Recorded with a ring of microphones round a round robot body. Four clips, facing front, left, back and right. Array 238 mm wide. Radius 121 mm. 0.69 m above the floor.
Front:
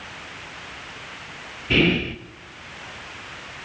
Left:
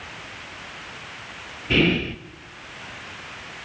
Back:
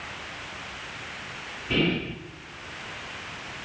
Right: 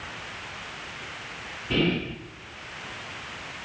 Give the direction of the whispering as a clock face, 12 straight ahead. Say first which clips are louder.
Left 4 dB, front 5 dB; 11 o'clock.